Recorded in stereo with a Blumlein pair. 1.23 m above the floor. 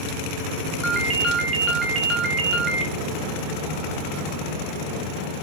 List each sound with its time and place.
0.8 s a ringtone: 25° right, 0.6 m